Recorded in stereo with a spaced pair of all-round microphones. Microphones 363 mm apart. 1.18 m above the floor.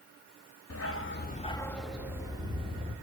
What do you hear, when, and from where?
0.7 s a dog barking: 40° left (ahead or behind), 0.7 m; by 2.9 s 15° right (ahead or behind), 1.6 m